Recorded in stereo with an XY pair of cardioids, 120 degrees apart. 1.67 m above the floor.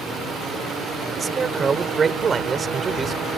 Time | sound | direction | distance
1.2 | a man speaking | 30° right | ?